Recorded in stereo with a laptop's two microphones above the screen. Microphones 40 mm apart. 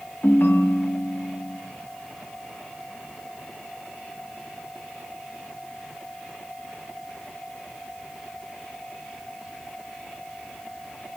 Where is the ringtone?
70° left (ahead or behind), 0.5 m.